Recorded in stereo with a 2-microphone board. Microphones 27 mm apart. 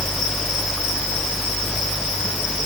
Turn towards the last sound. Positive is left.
No sound to turn to.